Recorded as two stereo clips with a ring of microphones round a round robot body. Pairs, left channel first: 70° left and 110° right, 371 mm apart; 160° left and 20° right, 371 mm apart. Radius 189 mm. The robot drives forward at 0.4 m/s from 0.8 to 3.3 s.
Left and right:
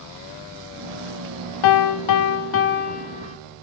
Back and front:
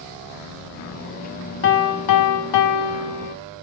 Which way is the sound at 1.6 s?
95° left.